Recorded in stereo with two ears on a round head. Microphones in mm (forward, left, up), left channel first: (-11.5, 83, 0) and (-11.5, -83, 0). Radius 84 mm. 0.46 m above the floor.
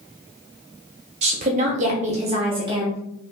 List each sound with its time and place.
1.2 s a woman speaking: 35° right (ahead or behind), 1.1 m; by 3.0 s 20° right (ahead or behind), 1.1 m